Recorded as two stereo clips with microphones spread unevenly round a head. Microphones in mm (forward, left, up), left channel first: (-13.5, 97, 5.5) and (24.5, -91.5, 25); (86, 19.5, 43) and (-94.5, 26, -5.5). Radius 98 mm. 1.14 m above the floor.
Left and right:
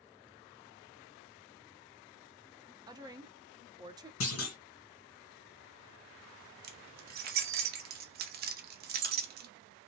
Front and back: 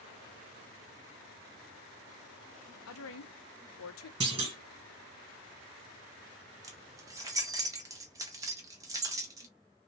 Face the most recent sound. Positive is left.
turn(degrees=-100)